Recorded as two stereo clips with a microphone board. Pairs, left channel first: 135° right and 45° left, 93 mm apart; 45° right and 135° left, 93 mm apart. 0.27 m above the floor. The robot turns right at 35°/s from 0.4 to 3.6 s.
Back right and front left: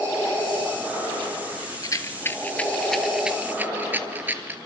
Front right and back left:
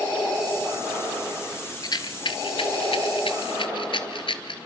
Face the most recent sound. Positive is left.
turn(degrees=-25)